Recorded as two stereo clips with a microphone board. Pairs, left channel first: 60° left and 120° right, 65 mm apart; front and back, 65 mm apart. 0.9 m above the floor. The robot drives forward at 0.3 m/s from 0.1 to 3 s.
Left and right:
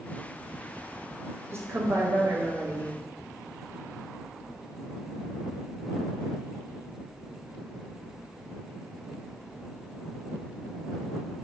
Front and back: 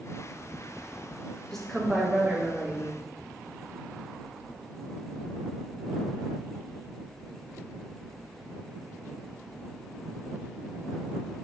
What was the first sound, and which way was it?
A woman speaking, 85° right.